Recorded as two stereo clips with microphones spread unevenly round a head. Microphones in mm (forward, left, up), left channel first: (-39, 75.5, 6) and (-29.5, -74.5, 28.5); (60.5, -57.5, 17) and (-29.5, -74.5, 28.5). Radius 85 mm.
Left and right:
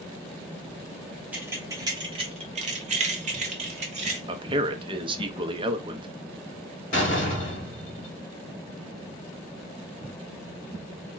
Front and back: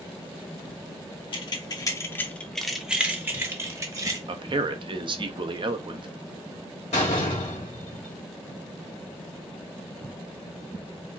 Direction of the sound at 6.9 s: 40° left.